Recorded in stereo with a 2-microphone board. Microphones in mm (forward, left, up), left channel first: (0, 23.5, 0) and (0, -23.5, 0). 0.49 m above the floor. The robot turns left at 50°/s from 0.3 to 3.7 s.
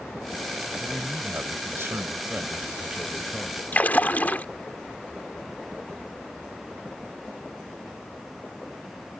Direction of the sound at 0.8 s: 55° right.